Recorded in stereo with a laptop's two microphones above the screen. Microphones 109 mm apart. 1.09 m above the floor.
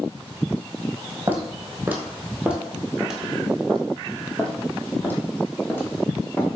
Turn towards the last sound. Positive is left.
turn(degrees=20)  # may be behind; listen again after turning